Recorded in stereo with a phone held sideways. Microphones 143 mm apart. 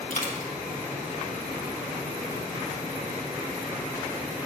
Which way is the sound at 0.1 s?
70° left (ahead or behind).